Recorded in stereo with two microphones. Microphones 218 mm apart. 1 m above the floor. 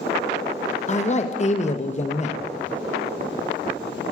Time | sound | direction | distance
0.9 | a man speaking | 35° left (ahead or behind) | 0.6 m